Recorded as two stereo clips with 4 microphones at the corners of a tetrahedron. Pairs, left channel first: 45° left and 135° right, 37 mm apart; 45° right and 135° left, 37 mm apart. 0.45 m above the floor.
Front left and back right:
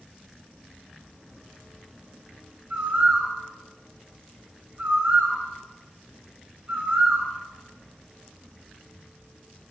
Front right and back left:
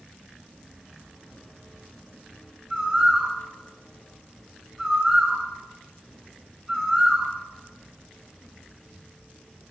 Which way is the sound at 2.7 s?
155° right.